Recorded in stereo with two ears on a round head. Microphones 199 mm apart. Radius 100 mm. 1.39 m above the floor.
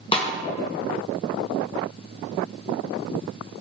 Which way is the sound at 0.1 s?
25° left (ahead or behind).